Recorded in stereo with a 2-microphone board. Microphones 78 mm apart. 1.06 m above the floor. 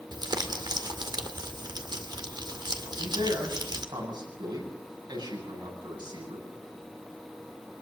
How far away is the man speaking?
About 9 m.